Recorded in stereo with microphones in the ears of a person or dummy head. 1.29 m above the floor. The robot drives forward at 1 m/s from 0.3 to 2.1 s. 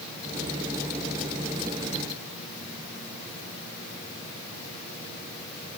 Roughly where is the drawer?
No drawer in this recording.